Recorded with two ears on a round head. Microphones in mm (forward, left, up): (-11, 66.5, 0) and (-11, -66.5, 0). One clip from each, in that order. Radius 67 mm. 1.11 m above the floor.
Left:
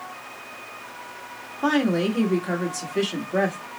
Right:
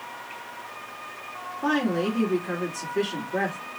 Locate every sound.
1.6 s a woman speaking: 80° left, 1.6 m